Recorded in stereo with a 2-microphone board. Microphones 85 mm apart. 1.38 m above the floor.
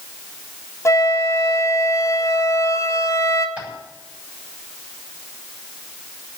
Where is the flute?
35° left (ahead or behind), 1.5 m.